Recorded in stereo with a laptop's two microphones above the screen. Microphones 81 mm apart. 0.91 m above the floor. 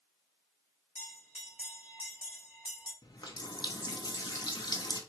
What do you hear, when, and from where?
0.9 s a bell: 15° right (ahead or behind), 1.7 m
3.0 s a running tap: 60° left (ahead or behind), 0.6 m